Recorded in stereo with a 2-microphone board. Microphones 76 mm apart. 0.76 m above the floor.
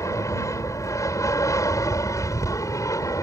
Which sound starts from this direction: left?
An aircraft, at 0.0 s.